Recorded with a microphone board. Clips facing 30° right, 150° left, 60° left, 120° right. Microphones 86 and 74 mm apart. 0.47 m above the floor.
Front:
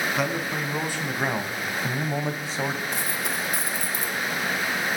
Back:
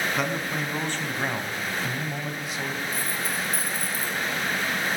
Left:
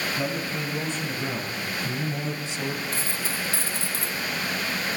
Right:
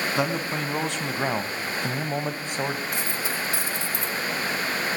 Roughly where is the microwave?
I don't hear a microwave.